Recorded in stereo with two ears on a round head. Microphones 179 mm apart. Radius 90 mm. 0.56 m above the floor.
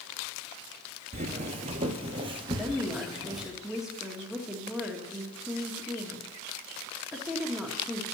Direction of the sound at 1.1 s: 40° right (ahead or behind).